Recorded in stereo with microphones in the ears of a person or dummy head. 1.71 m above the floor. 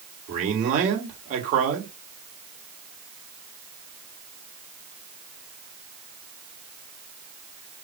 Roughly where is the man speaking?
Right.